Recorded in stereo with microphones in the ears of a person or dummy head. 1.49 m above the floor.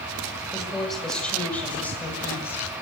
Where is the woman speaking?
Centre (ahead or behind), 7 m; by 2.7 s 15° left (ahead or behind), 8.5 m.